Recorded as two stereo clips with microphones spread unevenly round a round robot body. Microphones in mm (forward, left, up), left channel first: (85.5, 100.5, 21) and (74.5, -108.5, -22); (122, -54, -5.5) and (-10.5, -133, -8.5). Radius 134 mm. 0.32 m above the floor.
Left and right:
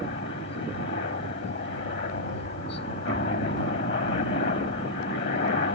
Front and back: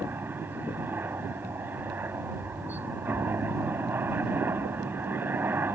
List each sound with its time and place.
0.0 s a helicopter: 130° left